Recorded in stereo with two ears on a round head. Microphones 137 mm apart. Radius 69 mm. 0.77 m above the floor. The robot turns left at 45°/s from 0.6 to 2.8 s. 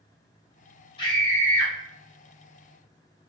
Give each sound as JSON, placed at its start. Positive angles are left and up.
{"t": 1.0, "sound": "a scream", "azimuth_deg": 40, "distance_m": 0.7}